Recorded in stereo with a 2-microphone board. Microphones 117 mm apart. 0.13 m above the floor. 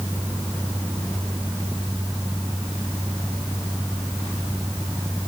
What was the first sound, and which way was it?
Only background noise.